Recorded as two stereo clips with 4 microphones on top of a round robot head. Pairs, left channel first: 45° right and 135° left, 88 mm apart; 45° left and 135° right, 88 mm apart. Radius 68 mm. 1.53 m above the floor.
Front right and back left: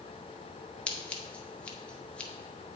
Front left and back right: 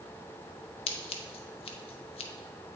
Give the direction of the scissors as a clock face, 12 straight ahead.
11 o'clock.